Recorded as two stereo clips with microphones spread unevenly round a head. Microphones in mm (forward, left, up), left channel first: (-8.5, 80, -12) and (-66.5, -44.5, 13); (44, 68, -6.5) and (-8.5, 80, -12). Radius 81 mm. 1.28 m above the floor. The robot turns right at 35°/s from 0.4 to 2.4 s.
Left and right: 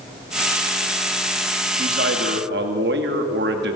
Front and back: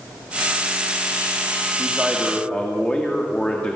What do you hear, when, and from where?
1.8 s a man speaking: 120° right, 2 m; by 3.8 s 95° right, 2 m